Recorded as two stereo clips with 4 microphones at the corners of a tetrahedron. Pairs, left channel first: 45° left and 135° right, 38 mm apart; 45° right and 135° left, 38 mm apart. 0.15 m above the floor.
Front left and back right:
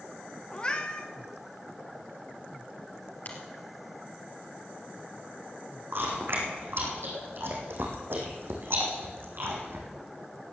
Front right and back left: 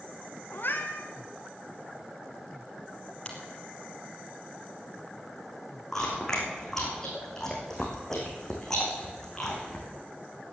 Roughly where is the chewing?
Behind right.